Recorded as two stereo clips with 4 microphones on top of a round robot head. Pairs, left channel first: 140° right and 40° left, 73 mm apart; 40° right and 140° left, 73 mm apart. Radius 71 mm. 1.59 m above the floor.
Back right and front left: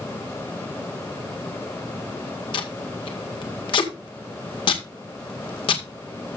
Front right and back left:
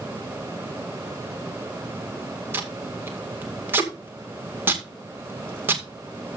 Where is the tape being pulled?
160° right, 2 m.